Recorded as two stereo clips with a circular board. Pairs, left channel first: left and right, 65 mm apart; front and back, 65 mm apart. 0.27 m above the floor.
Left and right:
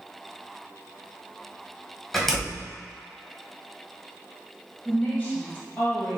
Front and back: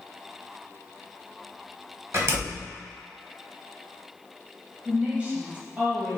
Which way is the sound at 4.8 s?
130° left.